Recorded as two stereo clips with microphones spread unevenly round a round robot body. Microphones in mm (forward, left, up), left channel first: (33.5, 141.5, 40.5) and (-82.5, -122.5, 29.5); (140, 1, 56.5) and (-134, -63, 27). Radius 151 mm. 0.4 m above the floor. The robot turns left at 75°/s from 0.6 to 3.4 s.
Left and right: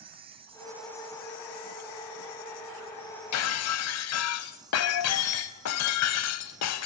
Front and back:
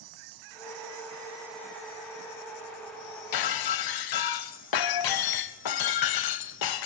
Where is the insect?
175° left, 1.0 m; by 6.9 s 35° right, 1.0 m.